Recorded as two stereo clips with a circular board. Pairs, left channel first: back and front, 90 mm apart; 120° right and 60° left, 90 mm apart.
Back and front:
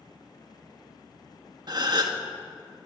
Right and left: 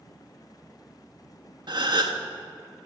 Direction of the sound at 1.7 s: 35° left.